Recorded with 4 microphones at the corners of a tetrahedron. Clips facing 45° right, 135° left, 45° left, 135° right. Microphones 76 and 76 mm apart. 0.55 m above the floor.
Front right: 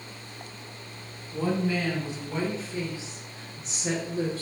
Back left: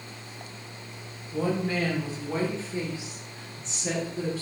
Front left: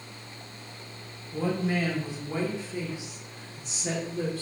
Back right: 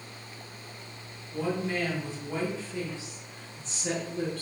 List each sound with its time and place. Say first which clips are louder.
1.3 s a woman speaking: even, front left 2 dB; 120° left, 1.5 m; by 4.4 s 35° right, 0.9 m